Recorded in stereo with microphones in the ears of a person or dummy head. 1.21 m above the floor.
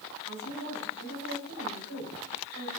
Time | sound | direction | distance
0.3 | a woman speaking | 80° right | 3 m